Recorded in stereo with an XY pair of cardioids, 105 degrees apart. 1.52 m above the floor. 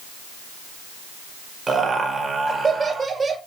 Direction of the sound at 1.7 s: 25° right.